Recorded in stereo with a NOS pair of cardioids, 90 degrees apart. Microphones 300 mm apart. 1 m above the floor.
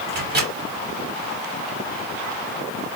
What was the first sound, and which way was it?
A microwave, 35° right.